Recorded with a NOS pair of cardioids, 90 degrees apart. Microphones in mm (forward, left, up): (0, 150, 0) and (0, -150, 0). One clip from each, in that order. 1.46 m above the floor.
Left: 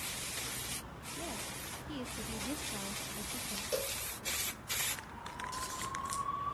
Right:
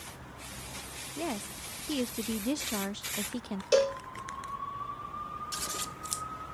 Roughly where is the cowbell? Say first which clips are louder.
Right 13 dB; ahead right.